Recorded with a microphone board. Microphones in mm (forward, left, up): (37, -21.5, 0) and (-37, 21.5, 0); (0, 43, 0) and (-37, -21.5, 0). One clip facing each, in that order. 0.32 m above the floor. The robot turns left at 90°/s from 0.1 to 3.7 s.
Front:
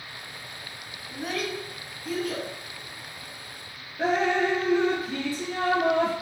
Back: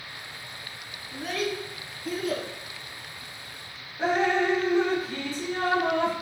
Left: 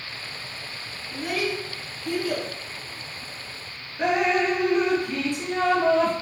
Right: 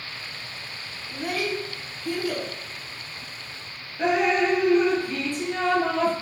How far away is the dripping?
About 1.2 m.